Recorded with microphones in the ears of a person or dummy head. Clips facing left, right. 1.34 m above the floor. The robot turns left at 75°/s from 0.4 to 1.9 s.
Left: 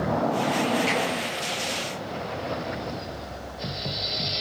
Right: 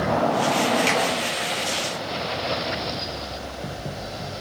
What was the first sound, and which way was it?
A finger snap, 40° right (ahead or behind).